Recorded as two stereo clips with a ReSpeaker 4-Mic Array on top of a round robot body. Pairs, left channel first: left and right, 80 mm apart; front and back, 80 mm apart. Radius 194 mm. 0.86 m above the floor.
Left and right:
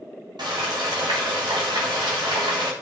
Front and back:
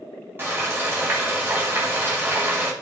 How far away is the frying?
About 1.4 m.